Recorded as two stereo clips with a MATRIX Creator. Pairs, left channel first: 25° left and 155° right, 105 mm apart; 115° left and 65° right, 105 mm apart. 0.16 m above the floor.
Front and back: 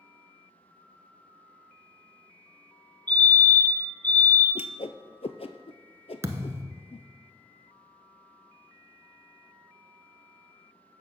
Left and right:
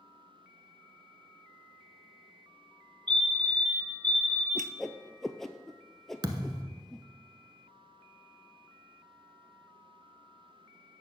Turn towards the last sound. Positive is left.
turn(degrees=-100)